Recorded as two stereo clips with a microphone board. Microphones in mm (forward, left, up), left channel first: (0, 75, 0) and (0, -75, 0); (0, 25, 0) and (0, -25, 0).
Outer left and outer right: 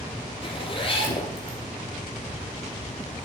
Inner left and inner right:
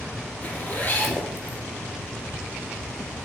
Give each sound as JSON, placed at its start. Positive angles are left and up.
{"t": 0.4, "sound": "a zipper", "side_deg": 35, "distance_m": 3.5}